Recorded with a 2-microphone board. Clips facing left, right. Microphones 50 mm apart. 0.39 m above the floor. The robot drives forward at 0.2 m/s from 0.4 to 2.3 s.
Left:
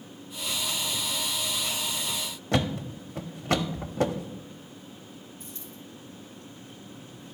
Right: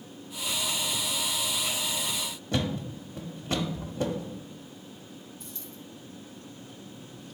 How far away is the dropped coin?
About 3.5 m.